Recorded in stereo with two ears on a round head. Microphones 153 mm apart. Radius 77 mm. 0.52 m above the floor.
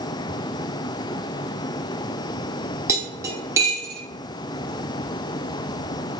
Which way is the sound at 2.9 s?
20° right (ahead or behind).